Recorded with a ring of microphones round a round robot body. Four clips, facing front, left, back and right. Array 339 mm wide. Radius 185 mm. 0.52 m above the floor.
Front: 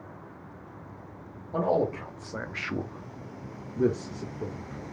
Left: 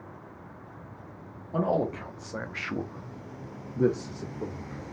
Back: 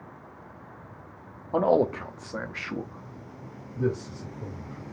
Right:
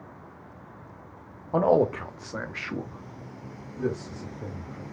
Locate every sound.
1.5 s a man speaking: 125° right, 0.9 m; by 4.8 s 50° left, 1.6 m